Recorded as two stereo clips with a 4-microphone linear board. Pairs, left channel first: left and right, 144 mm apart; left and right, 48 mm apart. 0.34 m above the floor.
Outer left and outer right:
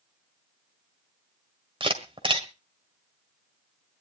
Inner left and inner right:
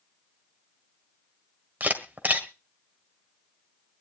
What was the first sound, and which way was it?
A camera shutter, 35° right (ahead or behind).